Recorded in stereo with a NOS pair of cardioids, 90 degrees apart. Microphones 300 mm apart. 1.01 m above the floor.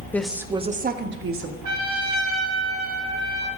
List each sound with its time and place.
0.1 s a woman speaking: 5° left, 1.1 m; by 1.5 s 50° right, 1.7 m
1.6 s a trumpet: 70° right, 2.5 m